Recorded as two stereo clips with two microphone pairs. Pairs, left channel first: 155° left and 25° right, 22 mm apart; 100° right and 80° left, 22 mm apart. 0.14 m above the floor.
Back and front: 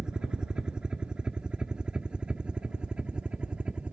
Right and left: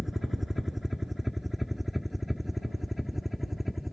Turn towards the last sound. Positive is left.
turn(degrees=-5)